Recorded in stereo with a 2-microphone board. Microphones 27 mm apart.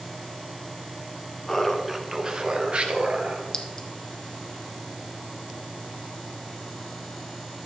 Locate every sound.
1.5 s laughter: 15° left (ahead or behind), 1.1 m; by 3.4 s 60° right (ahead or behind), 2 m
3.5 s a clink: 25° left (ahead or behind), 1.2 m